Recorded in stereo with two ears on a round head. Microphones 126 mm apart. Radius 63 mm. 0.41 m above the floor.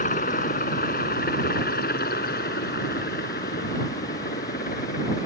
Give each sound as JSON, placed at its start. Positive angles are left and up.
{"t": 0.0, "sound": "a helicopter", "side_deg": 60}